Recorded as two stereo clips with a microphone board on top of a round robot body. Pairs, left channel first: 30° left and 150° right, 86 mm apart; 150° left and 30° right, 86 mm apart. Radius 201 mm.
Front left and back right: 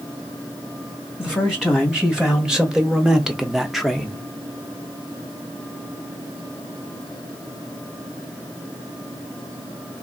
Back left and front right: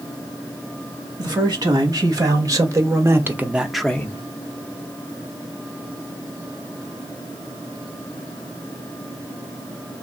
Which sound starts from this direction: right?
A man speaking, at 1.2 s.